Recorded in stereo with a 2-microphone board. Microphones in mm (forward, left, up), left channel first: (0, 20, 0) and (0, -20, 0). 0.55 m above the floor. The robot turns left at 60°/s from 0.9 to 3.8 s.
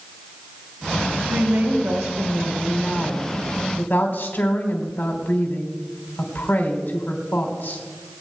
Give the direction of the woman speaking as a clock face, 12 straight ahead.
2 o'clock.